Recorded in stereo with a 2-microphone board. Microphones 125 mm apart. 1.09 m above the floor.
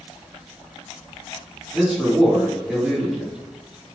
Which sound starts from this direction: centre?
A man speaking, at 1.7 s.